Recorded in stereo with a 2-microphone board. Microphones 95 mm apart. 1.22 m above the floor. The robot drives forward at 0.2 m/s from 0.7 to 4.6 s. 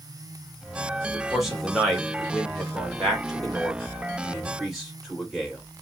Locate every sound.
1.1 s a man speaking: 5° right (ahead or behind), 1.4 m